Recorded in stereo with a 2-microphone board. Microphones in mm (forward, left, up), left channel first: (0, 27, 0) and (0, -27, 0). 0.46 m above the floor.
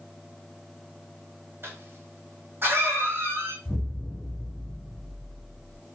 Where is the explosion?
70° left (ahead or behind), 1.5 m.